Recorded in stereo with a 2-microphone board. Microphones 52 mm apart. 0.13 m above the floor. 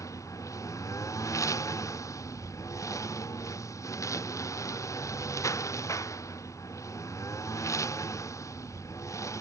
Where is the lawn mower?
80° left; by 9.4 s 70° left (ahead or behind).